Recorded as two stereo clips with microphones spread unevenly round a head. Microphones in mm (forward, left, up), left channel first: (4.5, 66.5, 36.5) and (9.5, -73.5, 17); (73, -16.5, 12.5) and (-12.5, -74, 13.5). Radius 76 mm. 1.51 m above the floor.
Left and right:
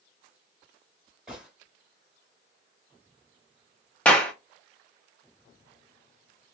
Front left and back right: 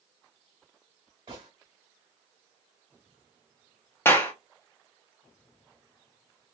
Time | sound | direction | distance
1.3 | a gunshot | straight behind | 1.6 m
4.0 | a clap | 55° left | 0.6 m